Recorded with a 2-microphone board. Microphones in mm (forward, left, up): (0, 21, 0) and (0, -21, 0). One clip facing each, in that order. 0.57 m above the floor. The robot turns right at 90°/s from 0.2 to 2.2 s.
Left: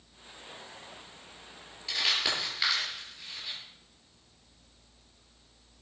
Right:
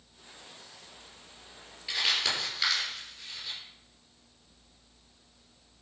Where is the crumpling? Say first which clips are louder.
Even; 15° right (ahead or behind), 6.5 m; by 3.6 s 15° left (ahead or behind), 6.5 m.